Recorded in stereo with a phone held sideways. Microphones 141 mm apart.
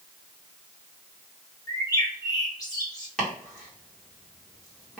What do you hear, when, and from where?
1.7 s a bird: 25° left (ahead or behind), 1.0 m
3.2 s chopping: 5° left (ahead or behind), 1.5 m